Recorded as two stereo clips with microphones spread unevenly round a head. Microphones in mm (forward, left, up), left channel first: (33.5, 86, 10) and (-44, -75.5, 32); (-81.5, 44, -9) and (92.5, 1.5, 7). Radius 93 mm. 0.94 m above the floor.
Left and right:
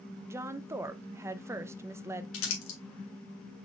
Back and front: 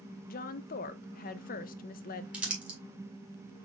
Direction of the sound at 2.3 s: 70° left.